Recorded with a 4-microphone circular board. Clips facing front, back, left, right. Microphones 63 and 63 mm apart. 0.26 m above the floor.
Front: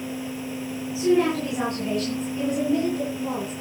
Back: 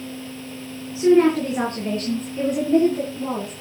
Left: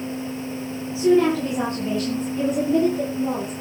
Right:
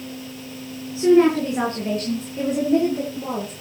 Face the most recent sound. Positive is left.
turn(degrees=-120)